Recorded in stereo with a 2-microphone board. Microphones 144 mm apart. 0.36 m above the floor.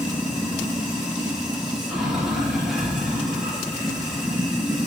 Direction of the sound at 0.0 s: 5° right (ahead or behind).